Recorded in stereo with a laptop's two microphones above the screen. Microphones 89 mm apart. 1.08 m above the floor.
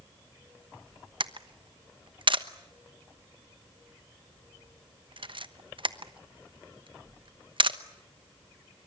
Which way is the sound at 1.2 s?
60° right (ahead or behind).